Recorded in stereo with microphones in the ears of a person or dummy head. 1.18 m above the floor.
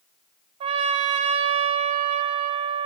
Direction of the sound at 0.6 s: 35° right (ahead or behind).